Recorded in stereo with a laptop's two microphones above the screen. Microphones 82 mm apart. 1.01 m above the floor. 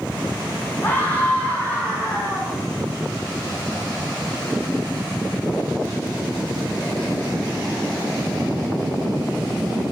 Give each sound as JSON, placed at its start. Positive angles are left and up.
{"t": 0.8, "sound": "a scream", "side_deg": 25, "distance_m": 8.0}